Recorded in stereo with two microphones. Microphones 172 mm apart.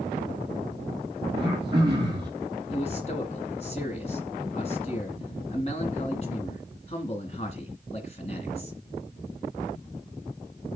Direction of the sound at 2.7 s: 40° left (ahead or behind).